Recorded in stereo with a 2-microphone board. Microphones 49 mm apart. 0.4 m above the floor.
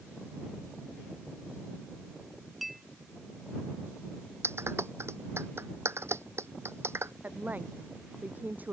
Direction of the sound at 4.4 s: 60° right (ahead or behind).